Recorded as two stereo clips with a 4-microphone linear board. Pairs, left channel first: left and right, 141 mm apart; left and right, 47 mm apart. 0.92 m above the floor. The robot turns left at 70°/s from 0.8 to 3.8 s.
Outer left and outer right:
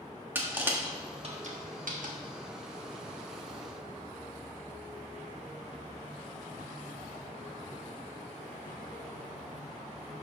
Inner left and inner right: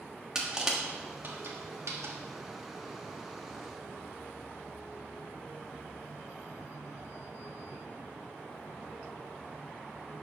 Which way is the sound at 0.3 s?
15° right (ahead or behind).